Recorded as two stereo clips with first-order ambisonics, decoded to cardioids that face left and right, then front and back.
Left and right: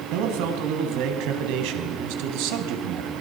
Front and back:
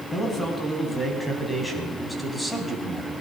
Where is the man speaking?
75° right, 5 m; by 3.1 s 95° right, 4 m.